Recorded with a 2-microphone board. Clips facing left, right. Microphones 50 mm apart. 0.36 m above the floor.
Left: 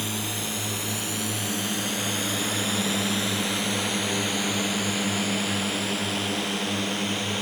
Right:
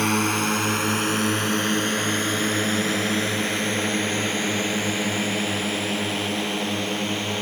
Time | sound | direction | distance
0.0 | a drone | 60° right (ahead or behind) | ?